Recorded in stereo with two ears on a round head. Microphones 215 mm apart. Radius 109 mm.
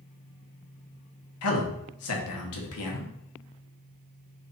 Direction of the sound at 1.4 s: 75° left (ahead or behind).